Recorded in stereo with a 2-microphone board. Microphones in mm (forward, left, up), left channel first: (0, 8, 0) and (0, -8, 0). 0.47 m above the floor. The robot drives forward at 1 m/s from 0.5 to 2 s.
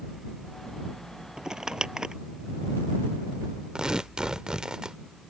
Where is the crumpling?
40° right (ahead or behind); by 2.1 s 45° right (ahead or behind).